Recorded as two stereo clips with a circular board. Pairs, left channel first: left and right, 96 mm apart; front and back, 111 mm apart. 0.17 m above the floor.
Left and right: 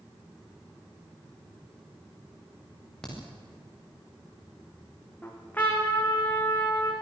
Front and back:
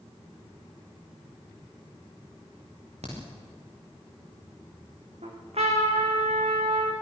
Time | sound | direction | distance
3.0 | a crack | 170° left | 8.5 m
5.2 | a trumpet | 160° left | 5 m